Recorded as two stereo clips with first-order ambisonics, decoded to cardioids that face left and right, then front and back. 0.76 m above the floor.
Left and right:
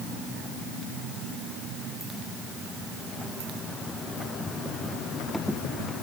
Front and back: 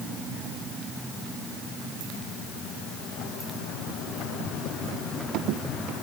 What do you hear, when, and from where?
Only background noise.